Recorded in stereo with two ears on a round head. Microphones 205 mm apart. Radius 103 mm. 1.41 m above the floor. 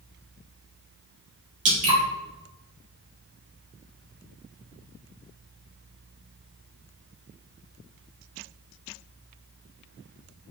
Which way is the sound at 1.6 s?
35° right (ahead or behind).